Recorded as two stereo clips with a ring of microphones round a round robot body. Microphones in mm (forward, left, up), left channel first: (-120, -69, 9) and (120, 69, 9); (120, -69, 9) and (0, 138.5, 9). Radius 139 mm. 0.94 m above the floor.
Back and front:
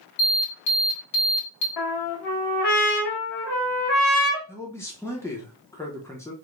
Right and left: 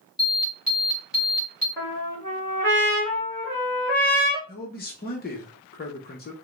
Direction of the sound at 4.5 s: 75° right.